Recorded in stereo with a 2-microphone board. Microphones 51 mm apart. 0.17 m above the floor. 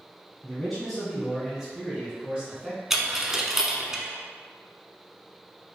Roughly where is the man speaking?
Centre.